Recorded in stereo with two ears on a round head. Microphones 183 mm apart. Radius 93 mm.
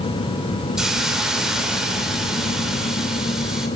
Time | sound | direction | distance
0.8 | a hiss | 5° right (ahead or behind) | 3 m